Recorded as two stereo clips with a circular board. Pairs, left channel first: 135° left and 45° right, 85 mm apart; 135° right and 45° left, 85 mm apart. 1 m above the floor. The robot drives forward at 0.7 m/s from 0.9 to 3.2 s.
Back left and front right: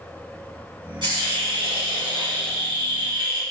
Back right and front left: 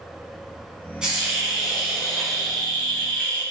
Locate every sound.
1.0 s a hiss: 35° right, 3.5 m; by 3.4 s 60° right, 2 m